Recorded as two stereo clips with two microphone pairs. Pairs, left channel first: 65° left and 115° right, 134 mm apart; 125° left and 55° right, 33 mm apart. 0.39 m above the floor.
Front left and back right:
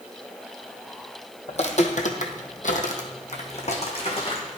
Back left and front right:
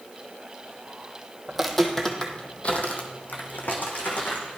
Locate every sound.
1.5 s footsteps: 25° left, 1.0 m; by 4.6 s 110° left, 2.0 m